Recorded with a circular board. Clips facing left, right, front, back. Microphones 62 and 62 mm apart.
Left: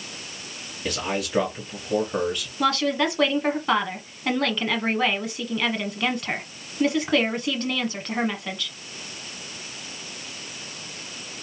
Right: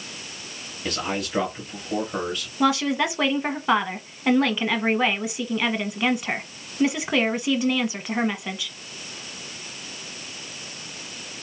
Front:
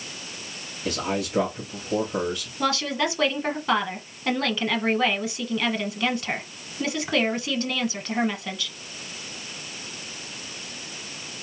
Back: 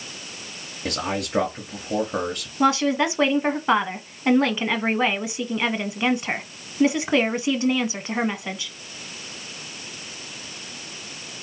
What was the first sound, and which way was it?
A man speaking, straight behind.